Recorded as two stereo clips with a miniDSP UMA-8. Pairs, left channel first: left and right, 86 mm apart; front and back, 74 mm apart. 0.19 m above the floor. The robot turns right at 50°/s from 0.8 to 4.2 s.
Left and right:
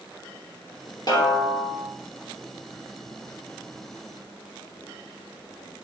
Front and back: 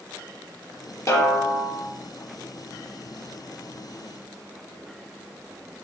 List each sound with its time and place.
1.1 s a snare drum: 50° left, 3 m; by 1.9 s 85° left, 3 m